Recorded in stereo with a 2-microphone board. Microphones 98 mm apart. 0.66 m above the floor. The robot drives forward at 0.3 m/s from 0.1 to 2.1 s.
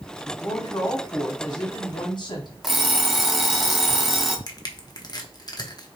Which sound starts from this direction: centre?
An alarm clock, at 2.6 s.